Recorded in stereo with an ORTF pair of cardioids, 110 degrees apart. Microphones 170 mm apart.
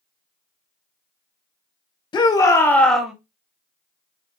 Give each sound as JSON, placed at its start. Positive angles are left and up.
{"t": 2.1, "sound": "a shout", "azimuth_deg": 30, "distance_m": 1.5}